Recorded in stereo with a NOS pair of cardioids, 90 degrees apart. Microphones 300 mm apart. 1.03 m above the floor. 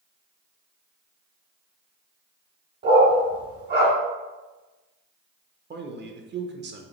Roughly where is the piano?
No piano in this recording.